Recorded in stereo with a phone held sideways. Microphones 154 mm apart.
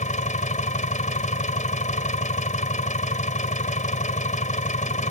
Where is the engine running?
55° left (ahead or behind).